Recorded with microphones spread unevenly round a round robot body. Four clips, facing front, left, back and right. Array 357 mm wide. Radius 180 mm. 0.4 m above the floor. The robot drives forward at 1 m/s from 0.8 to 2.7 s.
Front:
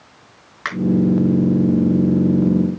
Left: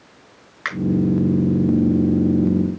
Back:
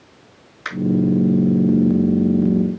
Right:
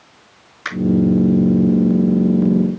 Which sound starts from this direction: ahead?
A finger snap, at 0.7 s.